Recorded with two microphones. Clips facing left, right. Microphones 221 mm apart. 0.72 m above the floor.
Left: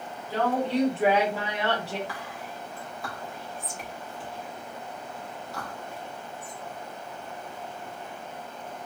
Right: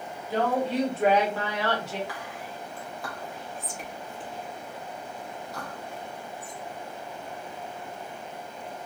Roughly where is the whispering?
Centre.